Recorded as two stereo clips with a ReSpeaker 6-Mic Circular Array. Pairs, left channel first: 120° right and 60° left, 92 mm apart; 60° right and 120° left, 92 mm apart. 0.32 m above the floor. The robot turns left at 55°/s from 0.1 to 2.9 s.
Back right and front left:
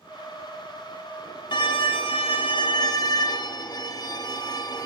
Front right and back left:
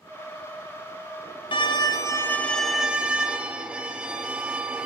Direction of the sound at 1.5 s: 85° right.